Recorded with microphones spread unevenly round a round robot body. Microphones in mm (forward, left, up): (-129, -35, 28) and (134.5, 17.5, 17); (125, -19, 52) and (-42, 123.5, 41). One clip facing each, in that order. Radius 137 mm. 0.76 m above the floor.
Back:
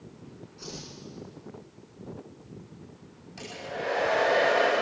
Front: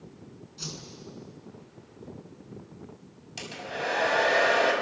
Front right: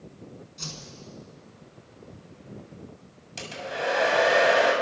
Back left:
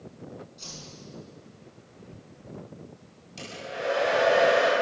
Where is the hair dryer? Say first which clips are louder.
Even, front right 2 dB; 25° right, 6.5 m.